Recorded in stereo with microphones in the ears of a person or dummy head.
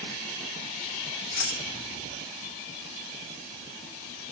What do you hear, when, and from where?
1.3 s keys jangling: 35° left (ahead or behind), 2 m